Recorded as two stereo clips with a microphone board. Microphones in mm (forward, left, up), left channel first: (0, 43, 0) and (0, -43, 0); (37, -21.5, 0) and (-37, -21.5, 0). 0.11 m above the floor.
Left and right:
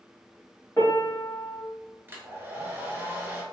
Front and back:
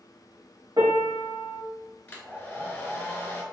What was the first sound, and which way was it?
A piano, 155° left.